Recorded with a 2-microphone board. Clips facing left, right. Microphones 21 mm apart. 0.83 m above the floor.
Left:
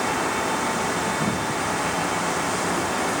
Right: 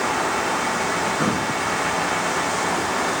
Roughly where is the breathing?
Right.